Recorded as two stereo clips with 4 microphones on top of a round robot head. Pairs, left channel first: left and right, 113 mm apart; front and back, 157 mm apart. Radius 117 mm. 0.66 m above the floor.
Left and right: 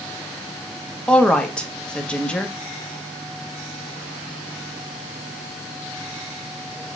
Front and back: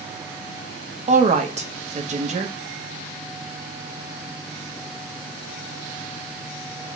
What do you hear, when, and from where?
1.1 s a woman speaking: 170° left, 1.1 m